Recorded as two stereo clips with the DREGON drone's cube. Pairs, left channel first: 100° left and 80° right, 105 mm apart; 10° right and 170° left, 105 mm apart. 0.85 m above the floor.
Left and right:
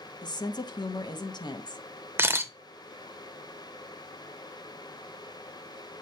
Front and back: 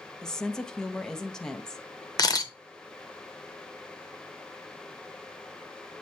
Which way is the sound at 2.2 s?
20° right.